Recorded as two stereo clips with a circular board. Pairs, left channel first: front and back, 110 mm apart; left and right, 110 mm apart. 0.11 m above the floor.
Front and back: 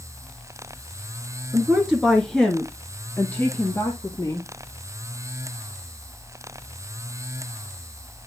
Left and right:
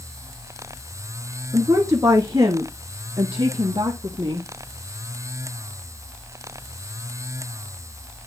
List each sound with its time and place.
1.5 s a woman speaking: 115° right, 1.4 m; by 4.5 s 55° right, 2 m